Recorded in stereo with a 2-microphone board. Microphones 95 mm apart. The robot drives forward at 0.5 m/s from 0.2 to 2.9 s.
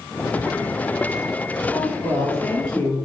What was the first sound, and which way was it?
A woman speaking, 10° left (ahead or behind).